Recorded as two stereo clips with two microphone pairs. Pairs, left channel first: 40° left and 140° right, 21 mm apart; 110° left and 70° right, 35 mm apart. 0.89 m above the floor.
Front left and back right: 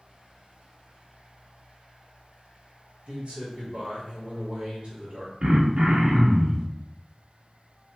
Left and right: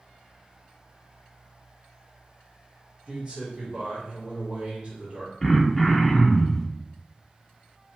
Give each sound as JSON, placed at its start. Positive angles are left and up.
{"t": 3.1, "sound": "a man speaking", "azimuth_deg": -110, "distance_m": 1.1}
{"t": 5.4, "sound": "throat clearing", "azimuth_deg": -155, "distance_m": 0.6}